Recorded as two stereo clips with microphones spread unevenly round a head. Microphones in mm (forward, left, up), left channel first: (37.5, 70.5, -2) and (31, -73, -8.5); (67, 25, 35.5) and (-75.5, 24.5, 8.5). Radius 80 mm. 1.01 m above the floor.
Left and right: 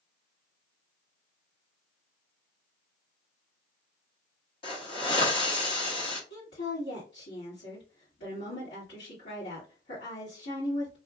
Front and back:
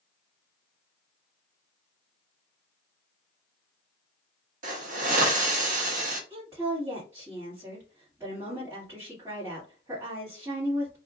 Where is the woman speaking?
115° left, 2 m.